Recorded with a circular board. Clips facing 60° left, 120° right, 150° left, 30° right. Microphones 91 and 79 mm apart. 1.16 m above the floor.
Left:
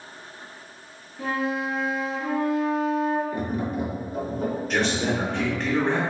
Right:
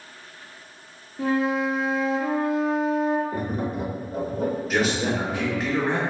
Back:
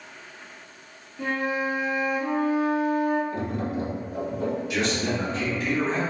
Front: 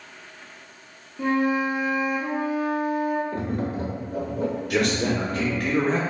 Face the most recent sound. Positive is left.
turn(degrees=-35)